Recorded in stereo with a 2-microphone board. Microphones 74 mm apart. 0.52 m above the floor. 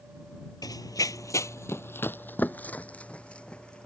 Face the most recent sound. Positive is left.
turn(degrees=15)  # may be behind; listen again after turning